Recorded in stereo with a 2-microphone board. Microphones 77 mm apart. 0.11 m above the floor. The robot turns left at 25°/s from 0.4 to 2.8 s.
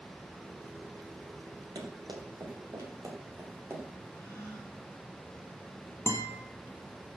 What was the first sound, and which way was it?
Running footsteps, 90° right.